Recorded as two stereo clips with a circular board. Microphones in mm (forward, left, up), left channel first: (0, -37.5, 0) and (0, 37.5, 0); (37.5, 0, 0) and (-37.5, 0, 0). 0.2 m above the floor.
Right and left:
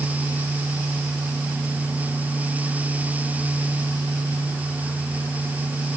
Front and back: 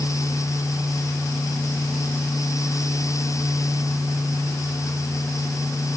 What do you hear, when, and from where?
Only background noise.